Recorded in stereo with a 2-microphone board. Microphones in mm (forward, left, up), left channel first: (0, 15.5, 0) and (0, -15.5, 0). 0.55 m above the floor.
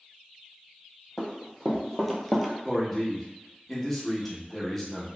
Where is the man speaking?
10° left (ahead or behind), 0.8 m.